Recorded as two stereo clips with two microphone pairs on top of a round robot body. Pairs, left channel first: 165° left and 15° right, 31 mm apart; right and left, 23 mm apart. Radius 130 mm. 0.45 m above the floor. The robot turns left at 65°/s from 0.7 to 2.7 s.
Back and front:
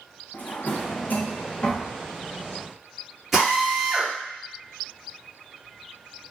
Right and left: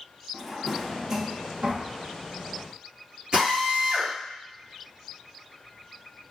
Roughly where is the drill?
Left.